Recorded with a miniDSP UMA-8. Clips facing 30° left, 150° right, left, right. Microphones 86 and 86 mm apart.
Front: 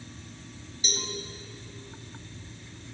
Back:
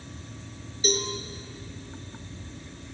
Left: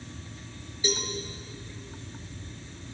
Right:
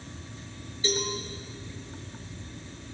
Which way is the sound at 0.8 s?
165° left.